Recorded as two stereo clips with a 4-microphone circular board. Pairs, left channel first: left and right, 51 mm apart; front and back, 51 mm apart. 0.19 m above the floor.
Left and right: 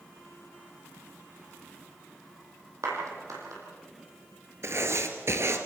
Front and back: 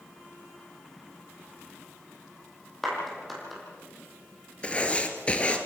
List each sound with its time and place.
2.8 s a clap: 90° right, 5.5 m
4.6 s writing: 65° right, 1.6 m